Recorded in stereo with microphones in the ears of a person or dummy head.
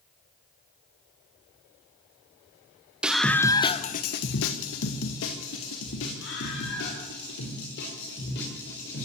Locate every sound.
3.0 s a scream: 5° right (ahead or behind), 1.5 m; by 9.1 s 60° left (ahead or behind), 6.5 m